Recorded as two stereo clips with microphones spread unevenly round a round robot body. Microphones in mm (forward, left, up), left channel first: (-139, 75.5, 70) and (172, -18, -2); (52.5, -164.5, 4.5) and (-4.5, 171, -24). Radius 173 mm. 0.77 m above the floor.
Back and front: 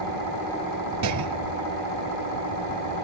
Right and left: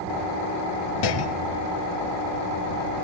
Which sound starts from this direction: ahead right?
A clunk, at 1.0 s.